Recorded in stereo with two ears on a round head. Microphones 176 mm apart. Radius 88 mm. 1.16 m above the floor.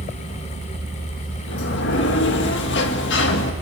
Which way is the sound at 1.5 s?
60° left (ahead or behind).